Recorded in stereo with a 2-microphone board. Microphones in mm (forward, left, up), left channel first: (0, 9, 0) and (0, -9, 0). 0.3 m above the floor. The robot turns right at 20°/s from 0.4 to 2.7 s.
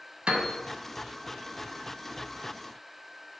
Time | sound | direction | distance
0.3 | a piano | 65° right (ahead or behind) | 0.5 m